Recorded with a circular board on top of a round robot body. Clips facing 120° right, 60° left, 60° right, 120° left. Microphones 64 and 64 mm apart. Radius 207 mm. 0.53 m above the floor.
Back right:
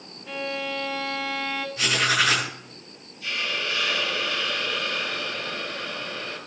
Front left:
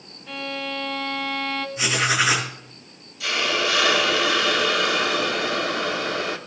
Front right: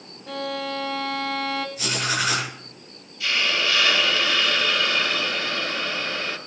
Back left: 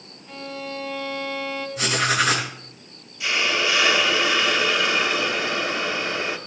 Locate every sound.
0.3 s a violin: 35° right, 0.9 m
1.8 s writing: 135° left, 4.5 m
3.2 s a hiss: 50° left, 1.1 m